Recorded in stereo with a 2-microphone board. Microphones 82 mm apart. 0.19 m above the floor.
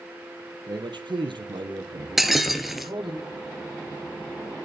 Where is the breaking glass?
Centre (ahead or behind), 2.5 m.